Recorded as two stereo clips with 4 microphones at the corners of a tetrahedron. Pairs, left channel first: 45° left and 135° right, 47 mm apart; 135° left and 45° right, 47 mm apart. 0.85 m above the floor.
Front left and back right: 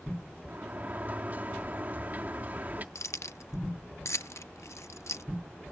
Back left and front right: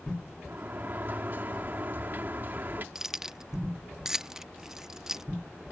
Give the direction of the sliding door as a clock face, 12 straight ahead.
3 o'clock.